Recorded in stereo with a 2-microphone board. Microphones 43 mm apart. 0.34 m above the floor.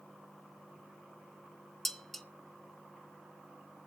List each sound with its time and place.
1.9 s dishes clattering: 5° left (ahead or behind), 0.6 m